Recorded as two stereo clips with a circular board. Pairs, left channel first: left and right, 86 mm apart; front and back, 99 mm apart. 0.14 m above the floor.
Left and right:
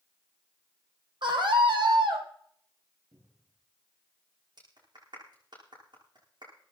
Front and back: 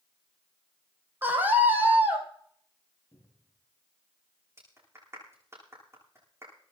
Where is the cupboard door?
60° right, 7 m.